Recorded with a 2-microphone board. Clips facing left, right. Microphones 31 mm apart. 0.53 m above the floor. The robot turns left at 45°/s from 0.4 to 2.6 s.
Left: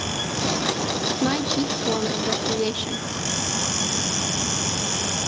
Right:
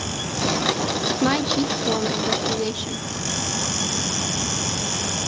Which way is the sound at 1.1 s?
135° right.